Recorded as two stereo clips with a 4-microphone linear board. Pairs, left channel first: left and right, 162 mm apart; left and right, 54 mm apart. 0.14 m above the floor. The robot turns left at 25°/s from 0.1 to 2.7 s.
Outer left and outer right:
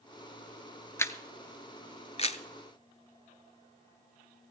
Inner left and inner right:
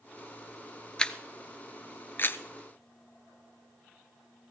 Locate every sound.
1.0 s a camera shutter: 15° left (ahead or behind), 0.7 m; by 2.4 s 45° left (ahead or behind), 0.7 m